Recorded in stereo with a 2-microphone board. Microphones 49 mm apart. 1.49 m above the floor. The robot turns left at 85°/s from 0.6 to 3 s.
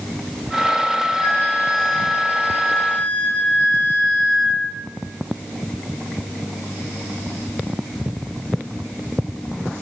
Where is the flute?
Straight behind, 0.9 m; by 4.8 s 25° left, 0.9 m.